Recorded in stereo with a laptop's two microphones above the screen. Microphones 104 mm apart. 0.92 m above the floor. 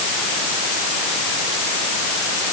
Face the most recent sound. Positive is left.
No sound to turn to.